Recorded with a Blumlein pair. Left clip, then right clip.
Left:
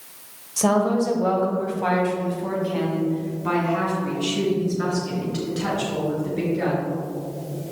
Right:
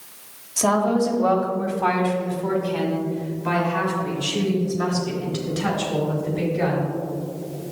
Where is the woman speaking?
Straight ahead, 1.2 m.